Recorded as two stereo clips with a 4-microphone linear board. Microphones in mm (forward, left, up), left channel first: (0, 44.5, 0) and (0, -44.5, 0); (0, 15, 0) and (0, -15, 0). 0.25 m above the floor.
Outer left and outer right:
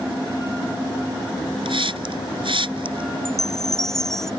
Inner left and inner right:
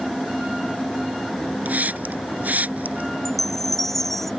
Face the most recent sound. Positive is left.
turn(degrees=5)  # may be behind; listen again after turning